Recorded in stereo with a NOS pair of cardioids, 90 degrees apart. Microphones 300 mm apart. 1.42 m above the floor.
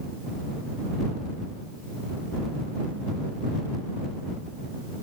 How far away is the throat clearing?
No throat clearing in this recording.